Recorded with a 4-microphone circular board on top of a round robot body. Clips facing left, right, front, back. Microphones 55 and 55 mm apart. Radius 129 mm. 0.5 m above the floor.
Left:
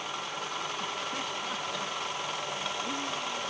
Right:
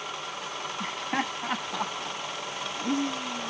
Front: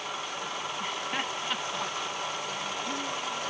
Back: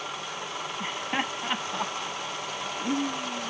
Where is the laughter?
105° right; by 3.5 s 120° right.